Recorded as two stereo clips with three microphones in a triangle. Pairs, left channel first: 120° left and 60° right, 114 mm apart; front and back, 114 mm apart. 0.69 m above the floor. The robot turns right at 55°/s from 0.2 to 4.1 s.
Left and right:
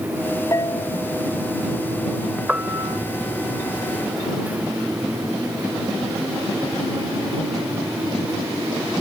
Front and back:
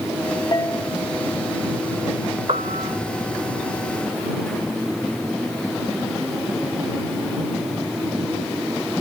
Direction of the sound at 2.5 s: 140° right.